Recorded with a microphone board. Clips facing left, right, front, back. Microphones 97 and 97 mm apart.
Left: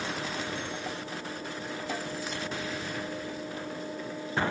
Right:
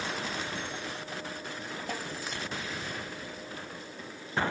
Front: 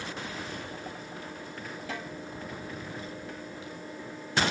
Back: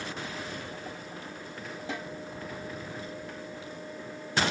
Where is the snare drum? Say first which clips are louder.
Left 2 dB, back 1 dB; 115° right, 2.5 m.